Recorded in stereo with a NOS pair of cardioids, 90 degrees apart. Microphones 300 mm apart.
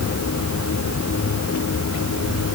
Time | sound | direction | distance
0.0 | a machine running | 50° left | ?